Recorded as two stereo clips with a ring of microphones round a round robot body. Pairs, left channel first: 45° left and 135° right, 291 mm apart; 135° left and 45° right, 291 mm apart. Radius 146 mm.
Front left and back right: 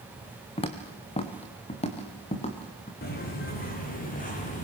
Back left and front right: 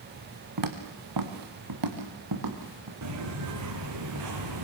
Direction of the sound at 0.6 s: 25° right.